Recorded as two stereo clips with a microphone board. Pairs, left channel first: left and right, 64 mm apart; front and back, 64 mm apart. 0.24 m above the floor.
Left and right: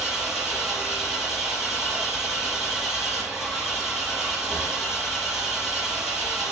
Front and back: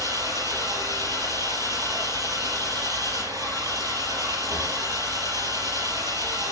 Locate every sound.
0.0 s an engine running: 175° right, 4 m